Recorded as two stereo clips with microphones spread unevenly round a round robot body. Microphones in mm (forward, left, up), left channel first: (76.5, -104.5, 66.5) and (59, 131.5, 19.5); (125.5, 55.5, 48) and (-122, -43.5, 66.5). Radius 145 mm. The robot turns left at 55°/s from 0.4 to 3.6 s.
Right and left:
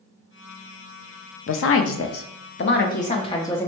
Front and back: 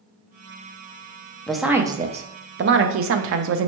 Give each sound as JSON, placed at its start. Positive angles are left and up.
{"t": 1.5, "sound": "a woman speaking", "azimuth_deg": -60, "distance_m": 0.5}